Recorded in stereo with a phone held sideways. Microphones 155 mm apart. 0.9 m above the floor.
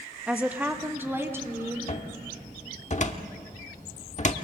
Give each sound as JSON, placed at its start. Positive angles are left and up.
{"t": 0.3, "sound": "a woman speaking", "side_deg": -5, "distance_m": 1.4}
{"t": 1.9, "sound": "a cupboard door", "side_deg": 45, "distance_m": 1.2}